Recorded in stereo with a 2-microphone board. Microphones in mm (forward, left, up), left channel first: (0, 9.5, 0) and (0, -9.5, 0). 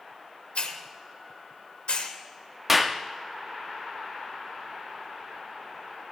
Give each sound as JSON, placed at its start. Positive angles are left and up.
{"t": 0.6, "sound": "a hiss", "side_deg": 80, "distance_m": 1.2}
{"t": 2.7, "sound": "a clap", "side_deg": -10, "distance_m": 0.7}